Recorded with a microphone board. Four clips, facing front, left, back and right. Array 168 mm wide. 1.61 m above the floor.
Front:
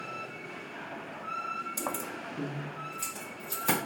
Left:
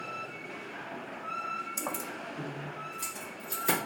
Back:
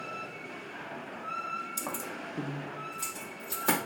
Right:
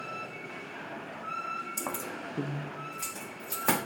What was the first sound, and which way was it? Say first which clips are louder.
Keys jangling: even, front 2 dB; 10° left.